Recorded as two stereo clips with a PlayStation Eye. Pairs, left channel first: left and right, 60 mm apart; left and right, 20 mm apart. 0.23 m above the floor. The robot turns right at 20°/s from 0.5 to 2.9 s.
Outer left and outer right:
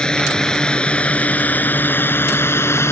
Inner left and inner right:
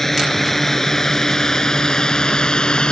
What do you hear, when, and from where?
0.0 s a drone: 10° left (ahead or behind); by 2.9 s 45° left (ahead or behind)